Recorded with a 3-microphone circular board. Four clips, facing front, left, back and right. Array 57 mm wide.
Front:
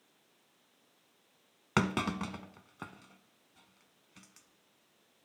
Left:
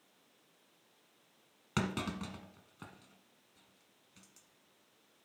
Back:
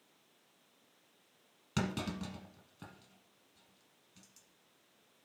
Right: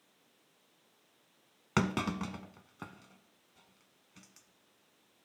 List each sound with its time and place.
1.8 s a clunk: 25° right, 0.7 m